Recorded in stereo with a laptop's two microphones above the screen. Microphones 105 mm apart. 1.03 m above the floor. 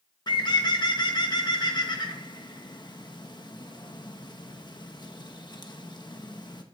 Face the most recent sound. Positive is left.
turn(degrees=40)  # may be behind; listen again after turning